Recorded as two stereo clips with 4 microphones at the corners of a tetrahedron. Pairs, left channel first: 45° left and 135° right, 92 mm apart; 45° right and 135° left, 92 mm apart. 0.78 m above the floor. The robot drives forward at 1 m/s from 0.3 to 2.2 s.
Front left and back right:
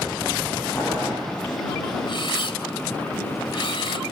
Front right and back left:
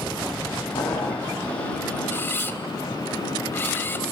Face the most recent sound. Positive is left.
turn(degrees=20)